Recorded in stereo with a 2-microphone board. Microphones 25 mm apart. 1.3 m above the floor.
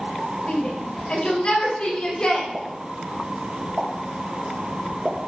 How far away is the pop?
About 1.5 m.